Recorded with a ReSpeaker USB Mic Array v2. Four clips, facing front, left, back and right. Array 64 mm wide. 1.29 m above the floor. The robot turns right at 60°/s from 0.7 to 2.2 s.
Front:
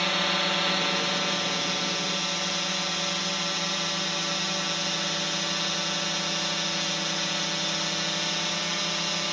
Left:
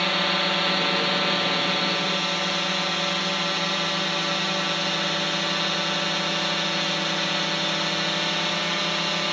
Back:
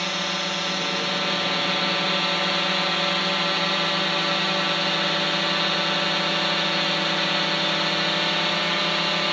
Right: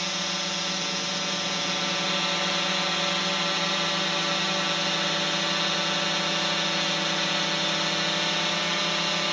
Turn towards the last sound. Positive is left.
turn(degrees=175)